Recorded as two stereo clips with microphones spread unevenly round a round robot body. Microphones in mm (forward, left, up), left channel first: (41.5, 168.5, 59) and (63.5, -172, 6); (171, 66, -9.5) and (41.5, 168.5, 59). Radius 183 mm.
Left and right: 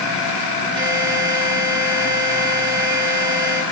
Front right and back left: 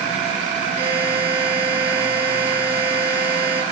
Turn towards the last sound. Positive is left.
turn(degrees=-135)